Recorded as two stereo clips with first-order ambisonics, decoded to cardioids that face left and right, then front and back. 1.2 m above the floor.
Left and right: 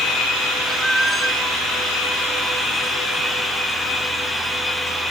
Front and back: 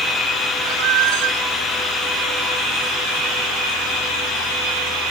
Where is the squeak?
175° right.